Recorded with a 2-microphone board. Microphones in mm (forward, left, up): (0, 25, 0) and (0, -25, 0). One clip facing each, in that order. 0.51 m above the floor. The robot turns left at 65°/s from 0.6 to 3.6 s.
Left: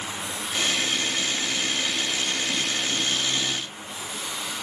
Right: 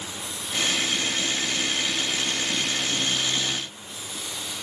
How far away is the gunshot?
I don't hear a gunshot.